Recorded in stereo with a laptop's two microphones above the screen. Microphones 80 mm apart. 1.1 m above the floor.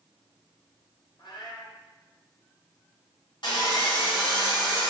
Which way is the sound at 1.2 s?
75° left (ahead or behind).